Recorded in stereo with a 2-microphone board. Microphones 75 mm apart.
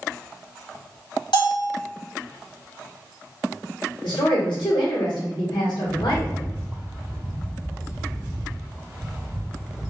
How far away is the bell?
About 1.9 m.